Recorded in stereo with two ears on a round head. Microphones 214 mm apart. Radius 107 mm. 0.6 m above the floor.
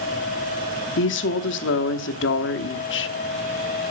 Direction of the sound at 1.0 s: 50° left (ahead or behind).